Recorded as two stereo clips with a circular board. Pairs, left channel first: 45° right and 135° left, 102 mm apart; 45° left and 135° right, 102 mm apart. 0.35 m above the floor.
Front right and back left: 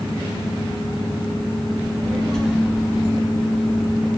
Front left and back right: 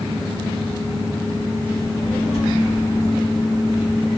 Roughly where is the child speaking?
Ahead left.